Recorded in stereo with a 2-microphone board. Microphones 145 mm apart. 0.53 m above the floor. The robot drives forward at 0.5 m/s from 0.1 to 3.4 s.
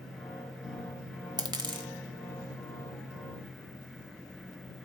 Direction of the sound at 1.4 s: 30° right (ahead or behind).